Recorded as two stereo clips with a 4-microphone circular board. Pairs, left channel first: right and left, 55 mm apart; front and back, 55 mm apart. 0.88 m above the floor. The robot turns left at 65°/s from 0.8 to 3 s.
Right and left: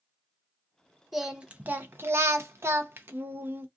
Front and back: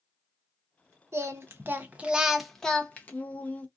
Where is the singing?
175° left, 0.6 m; by 3.7 s 55° left, 0.6 m.